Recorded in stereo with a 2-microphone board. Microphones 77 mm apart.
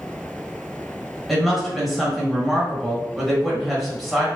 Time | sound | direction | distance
1.3 | a woman speaking | centre (ahead or behind) | 1.4 m